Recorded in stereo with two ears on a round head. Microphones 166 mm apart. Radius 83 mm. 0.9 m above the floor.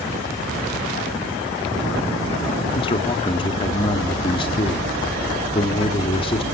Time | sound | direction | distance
2.8 | a man speaking | 25° left (ahead or behind) | 2 m